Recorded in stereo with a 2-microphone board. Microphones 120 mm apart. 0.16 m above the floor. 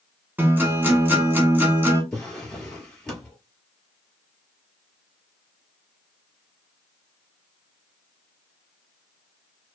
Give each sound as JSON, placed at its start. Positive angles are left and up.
{"t": 0.4, "sound": "a guitar", "side_deg": -15, "distance_m": 0.9}
{"t": 2.1, "sound": "a drawer", "side_deg": 10, "distance_m": 1.2}